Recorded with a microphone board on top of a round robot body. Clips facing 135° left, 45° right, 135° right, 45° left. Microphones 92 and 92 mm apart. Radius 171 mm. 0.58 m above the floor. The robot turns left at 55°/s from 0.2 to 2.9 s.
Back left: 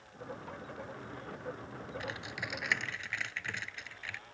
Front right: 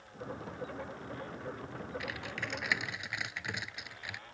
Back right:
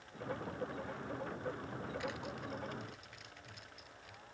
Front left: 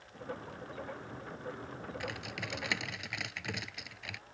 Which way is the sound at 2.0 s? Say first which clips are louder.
Front right 1 dB, front left 1 dB; 80° left.